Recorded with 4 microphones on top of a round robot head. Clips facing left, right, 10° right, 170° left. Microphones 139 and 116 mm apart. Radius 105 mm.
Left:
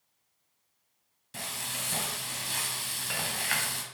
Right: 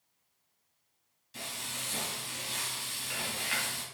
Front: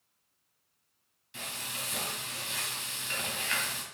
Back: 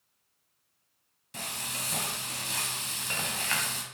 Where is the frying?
125° left, 1.7 m.